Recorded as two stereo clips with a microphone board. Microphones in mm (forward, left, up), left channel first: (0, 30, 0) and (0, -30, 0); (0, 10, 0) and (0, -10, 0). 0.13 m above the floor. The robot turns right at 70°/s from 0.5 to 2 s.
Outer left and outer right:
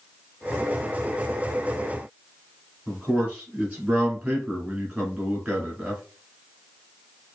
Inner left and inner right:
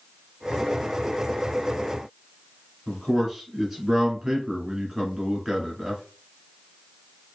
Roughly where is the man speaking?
Centre.